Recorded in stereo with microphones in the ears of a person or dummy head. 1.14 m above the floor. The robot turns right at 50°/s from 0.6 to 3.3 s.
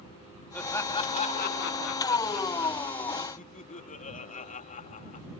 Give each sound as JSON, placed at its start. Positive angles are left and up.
{"t": 0.5, "sound": "laughter", "azimuth_deg": 5}